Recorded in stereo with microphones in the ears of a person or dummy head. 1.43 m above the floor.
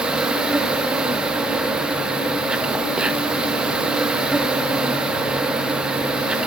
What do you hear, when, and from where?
0.0 s an insect: 5° right (ahead or behind), 1.0 m